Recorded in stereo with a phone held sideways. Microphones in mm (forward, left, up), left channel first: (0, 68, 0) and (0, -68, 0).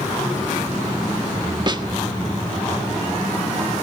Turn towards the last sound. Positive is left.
turn(degrees=-35)  # may be behind; listen again after turning